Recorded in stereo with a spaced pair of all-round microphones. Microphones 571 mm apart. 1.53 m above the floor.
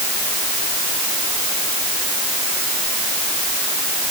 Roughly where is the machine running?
No machine running in this recording.